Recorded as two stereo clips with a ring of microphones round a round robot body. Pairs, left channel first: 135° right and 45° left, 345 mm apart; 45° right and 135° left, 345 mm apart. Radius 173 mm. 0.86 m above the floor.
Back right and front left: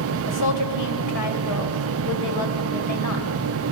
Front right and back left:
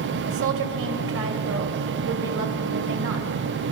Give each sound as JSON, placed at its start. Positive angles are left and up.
{"t": 0.3, "sound": "a woman speaking", "azimuth_deg": -170, "distance_m": 3.5}